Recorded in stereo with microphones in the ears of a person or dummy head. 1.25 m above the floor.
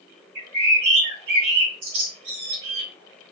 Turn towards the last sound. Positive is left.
turn(degrees=-50)  # may be behind; listen again after turning